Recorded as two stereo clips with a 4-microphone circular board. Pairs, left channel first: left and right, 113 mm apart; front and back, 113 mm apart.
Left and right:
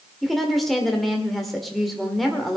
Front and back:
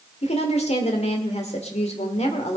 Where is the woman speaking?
Straight ahead, 1.7 m.